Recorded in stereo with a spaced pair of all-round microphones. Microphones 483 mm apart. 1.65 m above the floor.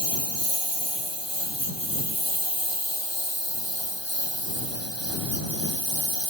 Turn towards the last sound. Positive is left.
turn(degrees=65)  # may be behind; listen again after turning